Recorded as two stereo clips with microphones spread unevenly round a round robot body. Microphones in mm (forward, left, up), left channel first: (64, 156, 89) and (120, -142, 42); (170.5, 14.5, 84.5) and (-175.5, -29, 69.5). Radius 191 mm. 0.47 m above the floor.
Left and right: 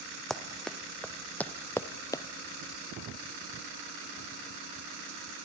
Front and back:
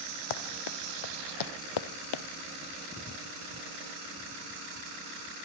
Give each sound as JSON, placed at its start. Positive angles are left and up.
{"t": 0.3, "sound": "running footsteps", "azimuth_deg": 15, "distance_m": 2.5}